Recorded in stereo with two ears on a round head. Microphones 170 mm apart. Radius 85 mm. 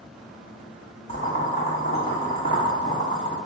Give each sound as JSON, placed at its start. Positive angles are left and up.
{"t": 1.1, "sound": "boiling", "side_deg": 35, "distance_m": 1.0}